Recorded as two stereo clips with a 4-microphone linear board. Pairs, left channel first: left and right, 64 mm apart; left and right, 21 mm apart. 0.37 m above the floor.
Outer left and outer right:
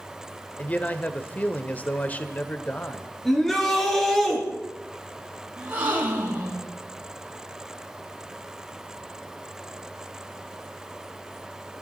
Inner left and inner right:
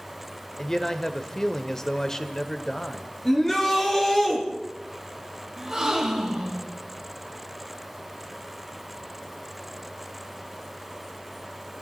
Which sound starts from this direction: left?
A man speaking, at 0.6 s.